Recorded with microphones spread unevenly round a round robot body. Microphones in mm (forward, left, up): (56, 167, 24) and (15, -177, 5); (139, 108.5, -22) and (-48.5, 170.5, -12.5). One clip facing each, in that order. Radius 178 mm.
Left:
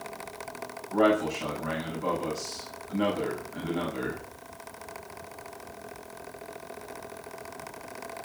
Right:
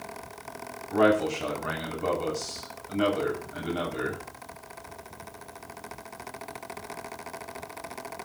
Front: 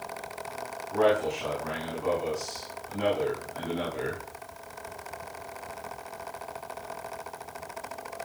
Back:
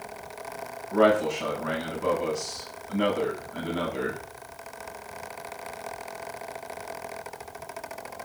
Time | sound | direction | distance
0.9 | a man speaking | 130° right | 6 m